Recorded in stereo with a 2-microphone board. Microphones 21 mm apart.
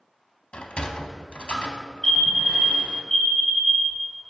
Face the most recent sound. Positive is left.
turn(degrees=25)  # may be behind; listen again after turning